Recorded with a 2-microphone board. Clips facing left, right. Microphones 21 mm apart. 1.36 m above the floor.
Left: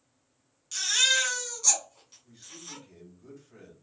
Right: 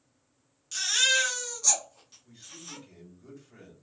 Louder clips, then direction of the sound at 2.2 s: Even; 5° right (ahead or behind).